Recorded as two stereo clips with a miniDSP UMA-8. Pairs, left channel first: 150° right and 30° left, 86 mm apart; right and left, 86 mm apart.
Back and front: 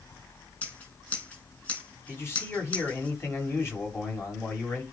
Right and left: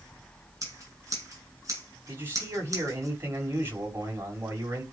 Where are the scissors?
145° left, 9 m.